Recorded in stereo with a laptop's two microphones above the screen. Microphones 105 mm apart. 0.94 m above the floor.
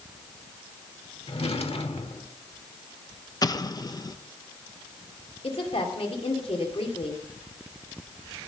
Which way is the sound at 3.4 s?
40° left (ahead or behind).